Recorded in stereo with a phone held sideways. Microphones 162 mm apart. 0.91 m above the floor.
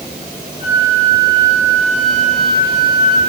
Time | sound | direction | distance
0.6 | a flute | 40° left (ahead or behind) | 5 m